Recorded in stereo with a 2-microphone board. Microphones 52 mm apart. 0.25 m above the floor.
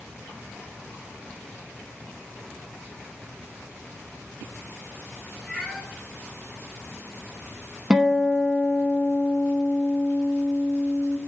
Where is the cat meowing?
5° left (ahead or behind), 2.5 m.